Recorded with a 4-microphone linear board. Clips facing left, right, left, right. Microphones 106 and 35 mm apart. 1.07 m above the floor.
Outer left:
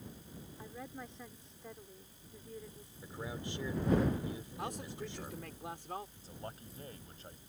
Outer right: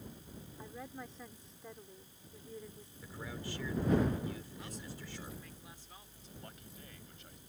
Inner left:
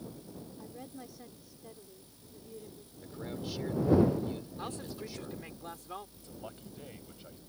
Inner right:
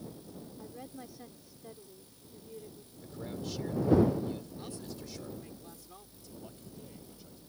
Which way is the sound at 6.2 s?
35° left (ahead or behind).